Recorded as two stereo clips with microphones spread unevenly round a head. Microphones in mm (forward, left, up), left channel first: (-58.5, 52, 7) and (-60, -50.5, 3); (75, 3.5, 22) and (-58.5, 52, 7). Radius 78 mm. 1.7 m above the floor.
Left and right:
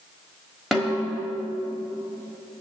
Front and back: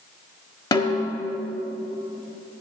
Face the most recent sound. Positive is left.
turn(degrees=0)